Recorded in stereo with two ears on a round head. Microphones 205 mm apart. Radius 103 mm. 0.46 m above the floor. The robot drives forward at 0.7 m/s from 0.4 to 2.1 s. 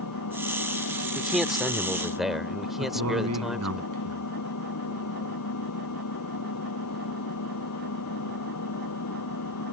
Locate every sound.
0.0 s an engine running: 85° left; by 9.7 s 80° left
1.1 s a man speaking: centre (ahead or behind)
2.8 s a man speaking: 75° right (ahead or behind)